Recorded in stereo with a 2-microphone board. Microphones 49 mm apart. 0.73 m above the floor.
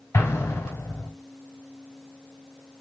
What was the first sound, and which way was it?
An explosion, 75° left (ahead or behind).